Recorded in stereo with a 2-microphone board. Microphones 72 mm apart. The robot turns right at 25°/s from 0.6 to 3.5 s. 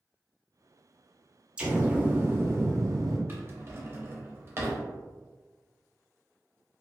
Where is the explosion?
165° right, 0.6 m; by 3.2 s 125° right, 0.6 m.